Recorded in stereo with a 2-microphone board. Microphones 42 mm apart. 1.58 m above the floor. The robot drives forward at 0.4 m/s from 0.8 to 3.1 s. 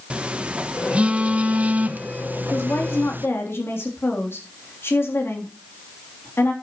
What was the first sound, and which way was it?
A phone buzzing, 30° right (ahead or behind).